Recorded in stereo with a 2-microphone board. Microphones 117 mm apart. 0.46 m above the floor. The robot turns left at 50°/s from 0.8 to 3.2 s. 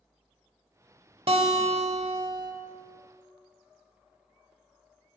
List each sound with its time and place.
1.3 s a guitar: 60° right, 0.8 m; by 2.5 s 125° right, 0.8 m